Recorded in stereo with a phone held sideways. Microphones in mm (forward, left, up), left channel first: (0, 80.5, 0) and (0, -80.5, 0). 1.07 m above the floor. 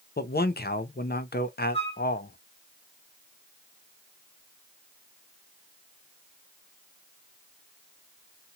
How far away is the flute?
About 1.4 m.